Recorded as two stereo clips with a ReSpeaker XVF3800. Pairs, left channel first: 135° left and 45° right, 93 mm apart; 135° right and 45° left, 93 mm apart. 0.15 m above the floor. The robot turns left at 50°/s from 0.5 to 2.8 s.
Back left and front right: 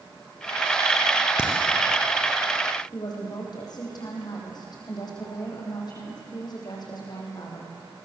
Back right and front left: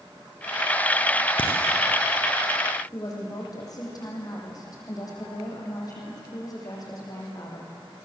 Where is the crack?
125° right, 3.5 m; by 1.5 s 130° right, 3.5 m.